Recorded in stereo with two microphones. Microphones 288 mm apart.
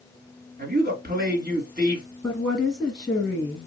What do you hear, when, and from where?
0.6 s a man speaking: 35° right (ahead or behind), 1.9 m
2.2 s a woman speaking: centre (ahead or behind), 1.5 m